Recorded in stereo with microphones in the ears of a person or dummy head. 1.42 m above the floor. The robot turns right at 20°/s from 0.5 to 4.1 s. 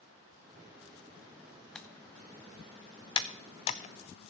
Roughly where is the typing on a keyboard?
Centre.